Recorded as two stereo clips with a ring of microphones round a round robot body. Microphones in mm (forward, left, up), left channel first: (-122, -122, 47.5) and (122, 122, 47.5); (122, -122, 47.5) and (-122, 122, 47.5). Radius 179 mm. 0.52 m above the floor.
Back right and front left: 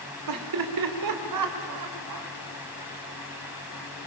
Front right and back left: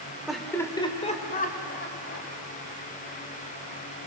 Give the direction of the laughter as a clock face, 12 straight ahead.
10 o'clock.